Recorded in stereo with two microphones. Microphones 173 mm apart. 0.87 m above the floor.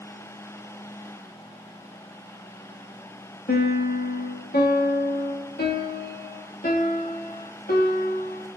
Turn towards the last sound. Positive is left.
turn(degrees=60)  # may be behind; listen again after turning